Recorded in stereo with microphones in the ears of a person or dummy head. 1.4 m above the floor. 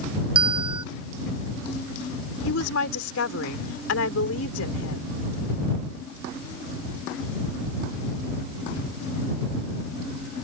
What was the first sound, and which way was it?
A bell, 30° right (ahead or behind).